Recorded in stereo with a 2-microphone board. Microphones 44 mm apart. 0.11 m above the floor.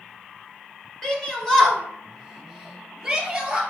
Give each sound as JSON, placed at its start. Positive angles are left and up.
{"t": 1.0, "sound": "a shout", "side_deg": 15, "distance_m": 1.4}